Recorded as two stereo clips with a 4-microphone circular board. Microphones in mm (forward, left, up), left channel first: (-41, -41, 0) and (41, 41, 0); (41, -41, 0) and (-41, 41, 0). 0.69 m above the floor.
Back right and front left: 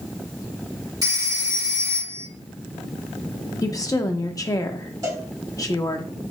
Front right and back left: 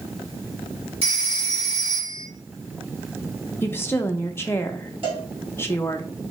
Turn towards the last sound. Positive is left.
turn(degrees=100)